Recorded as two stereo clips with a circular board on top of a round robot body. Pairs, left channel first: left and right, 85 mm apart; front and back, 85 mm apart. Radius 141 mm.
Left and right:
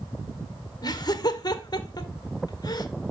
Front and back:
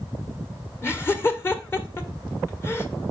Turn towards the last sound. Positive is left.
turn(degrees=60)